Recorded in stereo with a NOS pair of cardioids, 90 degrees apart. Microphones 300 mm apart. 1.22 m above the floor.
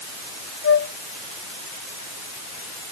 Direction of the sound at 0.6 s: 50° left.